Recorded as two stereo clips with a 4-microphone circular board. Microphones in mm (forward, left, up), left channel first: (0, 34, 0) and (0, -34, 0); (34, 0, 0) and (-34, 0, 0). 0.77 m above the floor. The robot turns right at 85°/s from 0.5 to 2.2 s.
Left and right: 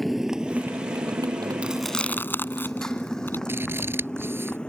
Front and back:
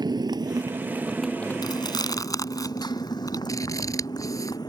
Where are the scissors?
35° right.